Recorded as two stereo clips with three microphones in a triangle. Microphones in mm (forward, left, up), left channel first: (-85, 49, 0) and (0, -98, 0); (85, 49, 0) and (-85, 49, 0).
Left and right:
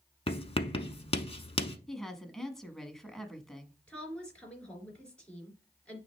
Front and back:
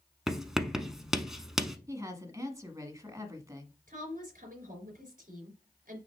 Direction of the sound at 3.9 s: 155° right.